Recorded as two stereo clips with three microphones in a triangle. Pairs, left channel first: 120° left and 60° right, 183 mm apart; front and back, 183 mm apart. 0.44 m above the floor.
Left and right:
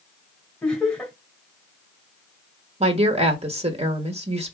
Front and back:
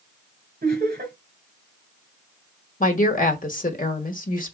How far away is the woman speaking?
About 1.3 m.